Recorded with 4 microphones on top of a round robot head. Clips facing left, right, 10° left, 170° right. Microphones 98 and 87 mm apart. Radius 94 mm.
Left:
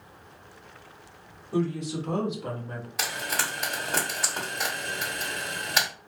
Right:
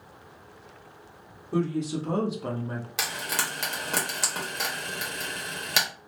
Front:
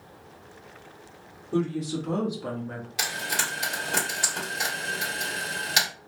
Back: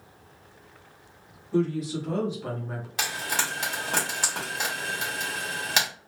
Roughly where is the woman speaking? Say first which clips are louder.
Right 1 dB, back 1 dB; ahead right.